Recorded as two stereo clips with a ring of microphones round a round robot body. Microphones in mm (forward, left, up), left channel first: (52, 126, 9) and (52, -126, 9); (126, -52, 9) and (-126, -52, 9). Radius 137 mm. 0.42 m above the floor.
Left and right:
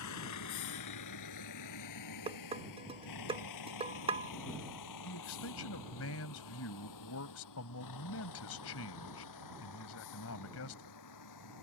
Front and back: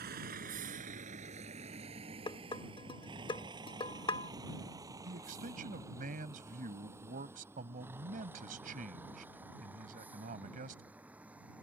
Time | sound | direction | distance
0.0 | a vehicle | 120° left | ?
2.3 | dishes clattering | 50° right | ?
5.0 | a man speaking | 120° left | ?